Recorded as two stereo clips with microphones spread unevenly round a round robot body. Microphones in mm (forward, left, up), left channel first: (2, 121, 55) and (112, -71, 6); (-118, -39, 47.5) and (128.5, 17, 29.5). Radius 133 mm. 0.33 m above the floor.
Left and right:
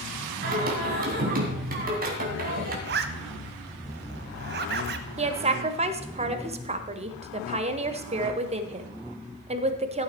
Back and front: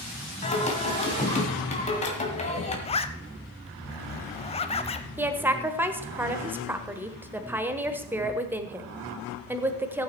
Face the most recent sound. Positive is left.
turn(degrees=-60)